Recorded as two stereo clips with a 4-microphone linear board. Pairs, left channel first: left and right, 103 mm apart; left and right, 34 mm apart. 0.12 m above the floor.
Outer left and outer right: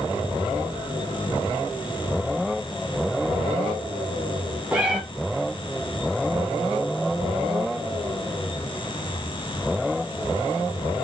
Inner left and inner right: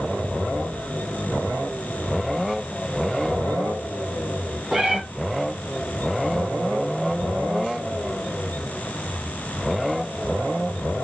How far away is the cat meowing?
About 4 m.